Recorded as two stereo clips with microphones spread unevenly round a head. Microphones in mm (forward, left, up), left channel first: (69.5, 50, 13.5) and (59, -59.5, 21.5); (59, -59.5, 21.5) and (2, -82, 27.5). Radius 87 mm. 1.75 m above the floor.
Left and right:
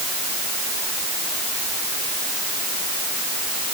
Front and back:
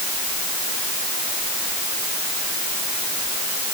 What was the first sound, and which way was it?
Only background noise.